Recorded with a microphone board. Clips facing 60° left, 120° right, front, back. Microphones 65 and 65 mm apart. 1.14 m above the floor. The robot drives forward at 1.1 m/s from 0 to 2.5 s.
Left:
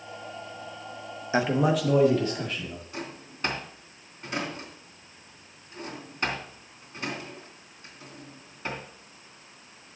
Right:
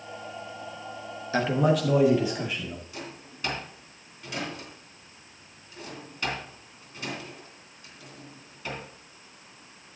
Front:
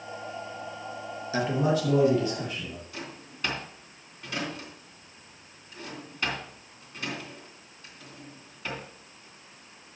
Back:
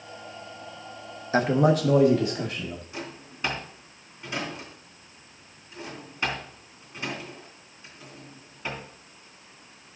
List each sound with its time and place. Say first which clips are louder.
1.3 s a man speaking: even, back 5 dB; 130° left, 0.9 m; by 2.8 s 160° left, 2.0 m
2.9 s a drawer: left 2 dB, back 3 dB; 110° left, 3 m